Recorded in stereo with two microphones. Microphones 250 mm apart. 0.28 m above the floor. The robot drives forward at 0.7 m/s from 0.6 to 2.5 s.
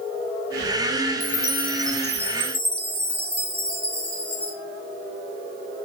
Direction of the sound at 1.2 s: 55° left (ahead or behind).